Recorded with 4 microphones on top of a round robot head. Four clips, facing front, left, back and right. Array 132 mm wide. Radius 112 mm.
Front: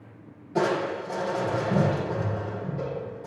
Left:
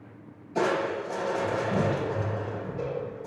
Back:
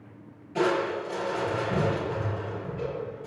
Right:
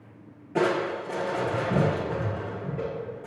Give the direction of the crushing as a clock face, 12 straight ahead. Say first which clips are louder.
Right 1 dB, even; 2 o'clock.